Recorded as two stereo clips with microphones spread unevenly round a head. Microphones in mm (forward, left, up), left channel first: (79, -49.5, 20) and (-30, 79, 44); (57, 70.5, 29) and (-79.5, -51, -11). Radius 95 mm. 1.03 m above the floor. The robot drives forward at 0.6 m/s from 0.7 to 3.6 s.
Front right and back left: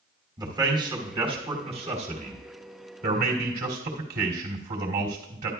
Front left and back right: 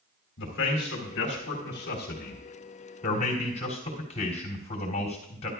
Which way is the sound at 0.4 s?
60° left.